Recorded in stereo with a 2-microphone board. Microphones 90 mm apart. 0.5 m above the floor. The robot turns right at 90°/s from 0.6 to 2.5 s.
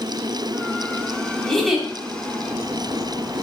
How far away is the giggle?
About 1.2 m.